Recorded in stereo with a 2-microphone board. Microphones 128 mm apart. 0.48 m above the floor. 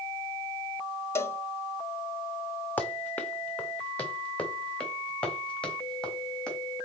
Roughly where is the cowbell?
Centre.